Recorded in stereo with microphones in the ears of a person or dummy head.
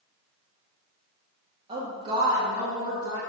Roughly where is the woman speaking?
Right.